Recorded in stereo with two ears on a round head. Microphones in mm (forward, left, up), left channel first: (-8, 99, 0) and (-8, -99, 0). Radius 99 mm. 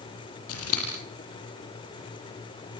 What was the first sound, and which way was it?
Scissors, 70° left (ahead or behind).